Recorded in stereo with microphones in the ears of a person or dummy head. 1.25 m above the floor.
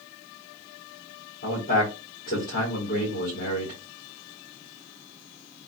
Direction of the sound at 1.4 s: 40° left (ahead or behind).